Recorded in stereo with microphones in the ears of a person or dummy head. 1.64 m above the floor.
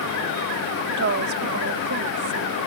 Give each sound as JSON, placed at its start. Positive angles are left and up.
{"t": 0.9, "sound": "a woman speaking", "side_deg": -60}